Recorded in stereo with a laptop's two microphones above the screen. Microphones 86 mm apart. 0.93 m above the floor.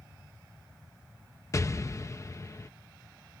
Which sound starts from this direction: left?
An explosion, at 1.5 s.